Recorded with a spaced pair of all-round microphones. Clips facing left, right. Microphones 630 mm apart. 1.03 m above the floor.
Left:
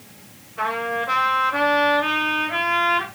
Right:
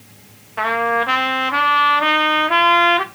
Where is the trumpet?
85° right, 1.2 m.